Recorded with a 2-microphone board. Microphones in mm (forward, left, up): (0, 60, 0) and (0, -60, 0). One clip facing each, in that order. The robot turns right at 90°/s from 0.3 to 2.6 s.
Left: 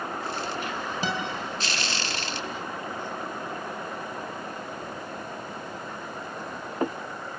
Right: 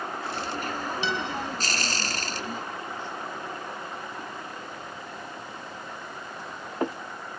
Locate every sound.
1.0 s a guitar: 40° left (ahead or behind), 3.5 m; by 1.3 s 60° left (ahead or behind), 3.5 m